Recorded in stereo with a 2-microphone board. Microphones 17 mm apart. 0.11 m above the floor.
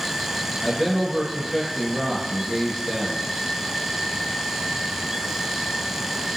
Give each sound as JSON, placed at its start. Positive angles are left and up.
{"t": 0.6, "sound": "a man speaking", "side_deg": 10, "distance_m": 1.3}